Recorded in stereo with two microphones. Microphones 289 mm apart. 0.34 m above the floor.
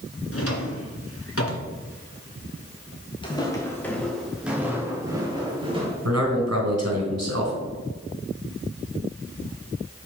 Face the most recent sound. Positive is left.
turn(degrees=-70)  # may be behind; listen again after turning